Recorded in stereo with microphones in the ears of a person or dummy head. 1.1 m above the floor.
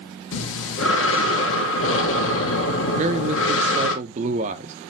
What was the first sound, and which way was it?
Breathing, 55° left (ahead or behind).